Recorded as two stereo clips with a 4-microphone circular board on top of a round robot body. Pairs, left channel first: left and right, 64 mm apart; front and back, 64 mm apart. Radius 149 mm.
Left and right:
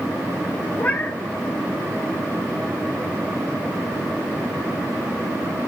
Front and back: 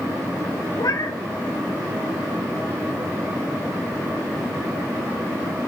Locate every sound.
0.8 s a cat meowing: 25° left, 2 m